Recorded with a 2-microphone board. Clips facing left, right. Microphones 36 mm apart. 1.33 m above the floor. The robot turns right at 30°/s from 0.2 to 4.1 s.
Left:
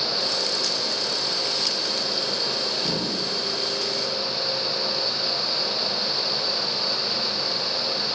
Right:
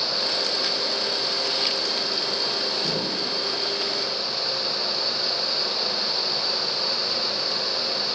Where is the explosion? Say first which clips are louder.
Even; 45° right (ahead or behind), 2 m; by 3.4 s 60° right (ahead or behind), 2 m.